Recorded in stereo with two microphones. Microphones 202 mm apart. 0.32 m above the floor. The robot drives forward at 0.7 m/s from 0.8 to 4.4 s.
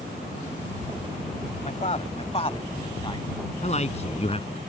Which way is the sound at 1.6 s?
40° left (ahead or behind).